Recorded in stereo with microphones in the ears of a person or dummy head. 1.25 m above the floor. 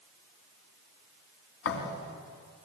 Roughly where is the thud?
Left.